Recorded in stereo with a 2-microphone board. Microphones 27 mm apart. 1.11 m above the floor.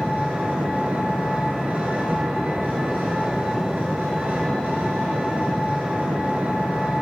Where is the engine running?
80° right, 4 m.